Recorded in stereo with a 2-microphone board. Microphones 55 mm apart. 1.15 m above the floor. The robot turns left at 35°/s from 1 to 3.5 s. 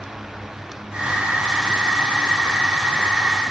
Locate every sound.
Only background noise.